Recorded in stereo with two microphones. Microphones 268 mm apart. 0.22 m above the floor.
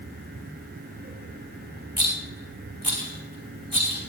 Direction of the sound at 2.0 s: 20° right (ahead or behind).